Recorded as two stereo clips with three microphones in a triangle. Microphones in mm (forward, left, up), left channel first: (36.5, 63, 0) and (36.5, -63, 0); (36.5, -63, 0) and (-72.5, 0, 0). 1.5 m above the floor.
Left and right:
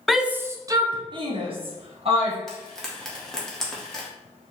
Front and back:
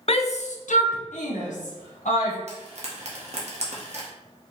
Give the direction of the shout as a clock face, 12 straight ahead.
12 o'clock.